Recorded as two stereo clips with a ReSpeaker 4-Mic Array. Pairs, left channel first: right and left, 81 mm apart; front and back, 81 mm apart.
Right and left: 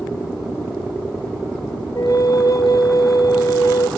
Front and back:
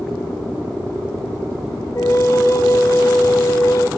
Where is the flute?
50° right, 1.6 m.